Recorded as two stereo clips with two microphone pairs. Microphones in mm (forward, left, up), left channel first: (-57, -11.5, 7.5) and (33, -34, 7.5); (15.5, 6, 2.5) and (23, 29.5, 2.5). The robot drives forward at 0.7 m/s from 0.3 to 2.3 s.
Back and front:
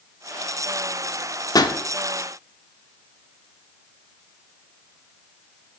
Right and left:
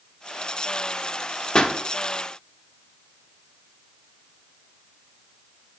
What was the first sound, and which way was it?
A pop, 150° right.